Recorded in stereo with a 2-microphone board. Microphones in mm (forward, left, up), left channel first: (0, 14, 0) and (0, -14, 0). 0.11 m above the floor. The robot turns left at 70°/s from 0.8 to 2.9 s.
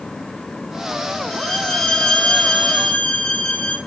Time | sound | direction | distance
1.3 | a violin | 170° right | 1.9 m